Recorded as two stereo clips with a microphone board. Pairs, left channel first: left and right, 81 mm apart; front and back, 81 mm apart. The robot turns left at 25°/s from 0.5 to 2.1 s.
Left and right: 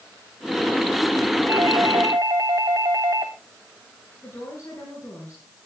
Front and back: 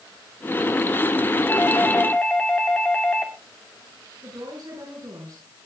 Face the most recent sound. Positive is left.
turn(degrees=150)